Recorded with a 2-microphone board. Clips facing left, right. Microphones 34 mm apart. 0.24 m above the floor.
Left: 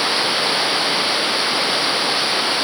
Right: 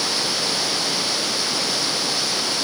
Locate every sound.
0.0 s running water: 30° left (ahead or behind)